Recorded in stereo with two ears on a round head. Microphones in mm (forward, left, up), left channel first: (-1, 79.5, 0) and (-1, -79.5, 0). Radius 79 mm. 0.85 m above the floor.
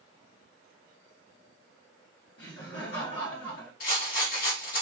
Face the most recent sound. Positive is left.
turn(degrees=50)  # may be behind; listen again after turning